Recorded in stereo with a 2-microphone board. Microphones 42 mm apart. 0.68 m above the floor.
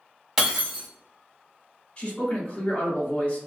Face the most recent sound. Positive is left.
turn(degrees=25)  # may be behind; listen again after turning